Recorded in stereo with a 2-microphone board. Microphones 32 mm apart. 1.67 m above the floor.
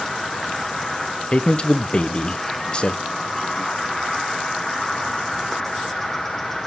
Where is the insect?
5° left (ahead or behind), 1.1 m.